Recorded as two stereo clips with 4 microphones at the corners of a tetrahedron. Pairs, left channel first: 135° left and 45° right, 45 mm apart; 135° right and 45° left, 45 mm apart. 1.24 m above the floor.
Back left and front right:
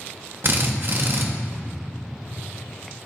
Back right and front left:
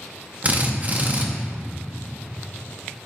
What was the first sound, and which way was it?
A drill, 10° right.